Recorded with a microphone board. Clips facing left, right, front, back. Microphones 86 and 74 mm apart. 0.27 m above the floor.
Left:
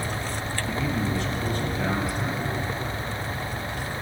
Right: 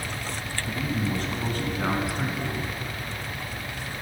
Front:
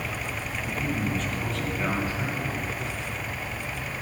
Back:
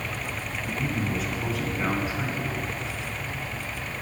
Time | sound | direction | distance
0.7 | a man speaking | 85° right | 1.4 m